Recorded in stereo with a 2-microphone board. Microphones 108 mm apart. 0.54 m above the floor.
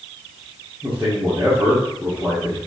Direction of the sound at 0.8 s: 15° right (ahead or behind).